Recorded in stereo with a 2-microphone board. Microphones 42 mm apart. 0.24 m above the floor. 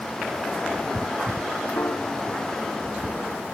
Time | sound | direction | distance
1.8 | a piano | 75° left (ahead or behind) | ?